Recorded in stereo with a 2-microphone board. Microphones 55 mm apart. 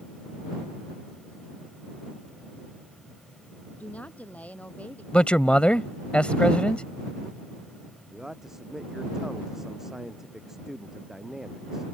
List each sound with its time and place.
3.8 s a woman speaking: 25° left (ahead or behind)
5.1 s a man speaking: 20° left (ahead or behind)
8.1 s a man speaking: 10° right (ahead or behind)